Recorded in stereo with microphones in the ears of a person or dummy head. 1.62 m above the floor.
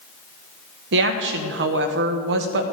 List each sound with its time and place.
0.9 s a woman speaking: 70° right (ahead or behind), 1.1 m